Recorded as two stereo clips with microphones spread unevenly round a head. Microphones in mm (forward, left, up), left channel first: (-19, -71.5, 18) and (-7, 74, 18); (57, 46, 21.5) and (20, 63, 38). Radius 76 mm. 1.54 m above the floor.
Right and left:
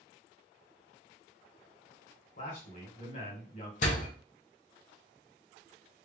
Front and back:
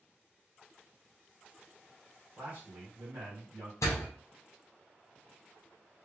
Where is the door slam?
60° right, 1.2 m.